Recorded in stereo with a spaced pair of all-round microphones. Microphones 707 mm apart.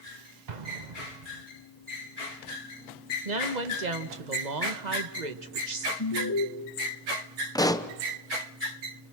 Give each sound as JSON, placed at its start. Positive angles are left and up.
{"t": 0.5, "sound": "an explosion", "side_deg": -80, "distance_m": 1.3}
{"t": 3.2, "sound": "a woman speaking", "side_deg": -75, "distance_m": 1.7}
{"t": 6.0, "sound": "an alarm", "side_deg": 25, "distance_m": 1.9}
{"t": 7.5, "sound": "a pop", "side_deg": 5, "distance_m": 0.9}